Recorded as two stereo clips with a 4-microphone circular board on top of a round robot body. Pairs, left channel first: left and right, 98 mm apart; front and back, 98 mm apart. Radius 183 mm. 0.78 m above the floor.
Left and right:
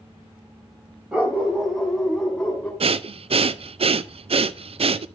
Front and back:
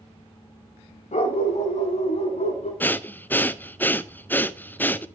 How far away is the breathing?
About 0.7 m.